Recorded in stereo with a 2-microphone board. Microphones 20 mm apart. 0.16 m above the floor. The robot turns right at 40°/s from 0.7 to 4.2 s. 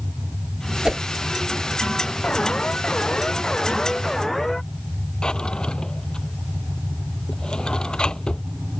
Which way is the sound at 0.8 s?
40° right (ahead or behind).